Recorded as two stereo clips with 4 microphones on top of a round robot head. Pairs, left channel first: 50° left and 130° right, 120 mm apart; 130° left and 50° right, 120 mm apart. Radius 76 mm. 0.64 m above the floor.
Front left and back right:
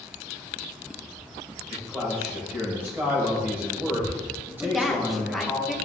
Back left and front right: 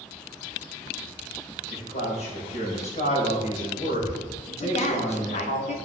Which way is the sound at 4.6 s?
145° left.